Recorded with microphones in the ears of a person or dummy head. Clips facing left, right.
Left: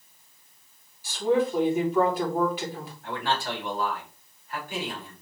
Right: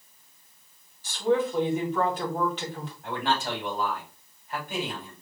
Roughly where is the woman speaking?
Centre.